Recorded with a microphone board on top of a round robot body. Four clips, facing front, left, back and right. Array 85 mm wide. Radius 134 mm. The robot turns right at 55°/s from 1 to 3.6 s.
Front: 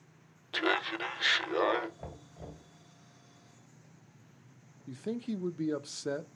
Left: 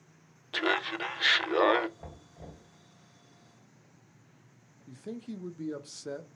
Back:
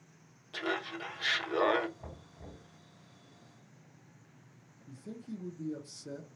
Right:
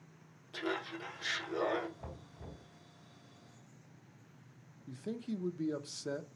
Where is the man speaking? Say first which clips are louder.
Even, front 8 dB; 5° right, 0.5 m.